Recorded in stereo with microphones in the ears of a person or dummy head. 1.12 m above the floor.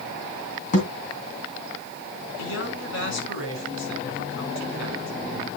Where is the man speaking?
60° left (ahead or behind), 6 m.